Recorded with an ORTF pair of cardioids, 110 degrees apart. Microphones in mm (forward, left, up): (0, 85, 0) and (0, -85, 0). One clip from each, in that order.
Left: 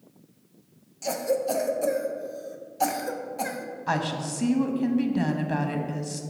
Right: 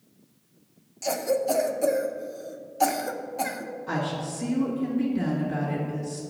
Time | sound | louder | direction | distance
1.0 | a cough | right 1 dB | 5° right | 0.5 m
3.9 | a woman speaking | left 3 dB | 70° left | 1.1 m